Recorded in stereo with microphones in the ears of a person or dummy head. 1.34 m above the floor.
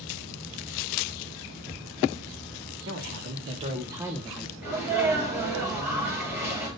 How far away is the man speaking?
About 1.6 m.